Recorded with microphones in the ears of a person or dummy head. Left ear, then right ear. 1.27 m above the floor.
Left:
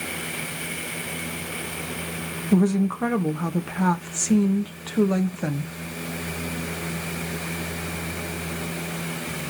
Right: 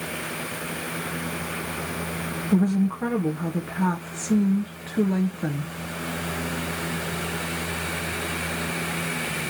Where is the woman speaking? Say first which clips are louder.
Left 3 dB; 20° left (ahead or behind), 1.8 m.